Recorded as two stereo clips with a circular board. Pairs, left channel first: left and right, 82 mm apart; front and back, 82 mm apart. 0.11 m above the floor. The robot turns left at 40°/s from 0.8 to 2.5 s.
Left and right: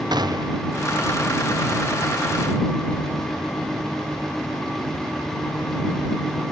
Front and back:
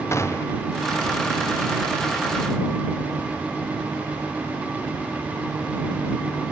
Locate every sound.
0.1 s a gunshot: 55° right